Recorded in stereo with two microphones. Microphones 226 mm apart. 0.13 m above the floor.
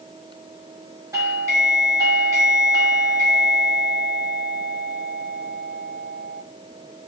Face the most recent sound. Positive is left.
turn(degrees=-15)  # may be behind; listen again after turning